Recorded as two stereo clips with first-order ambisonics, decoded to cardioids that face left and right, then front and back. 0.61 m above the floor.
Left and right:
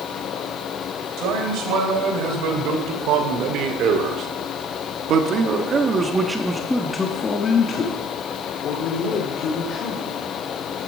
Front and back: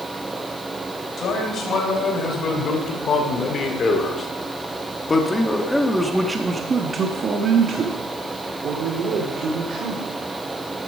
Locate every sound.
1.2 s a man speaking: 55° right, 3 m; by 10.1 s 130° left, 2.5 m